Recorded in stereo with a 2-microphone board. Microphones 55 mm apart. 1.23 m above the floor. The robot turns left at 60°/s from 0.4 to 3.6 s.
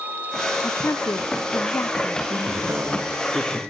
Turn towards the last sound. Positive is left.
turn(degrees=180)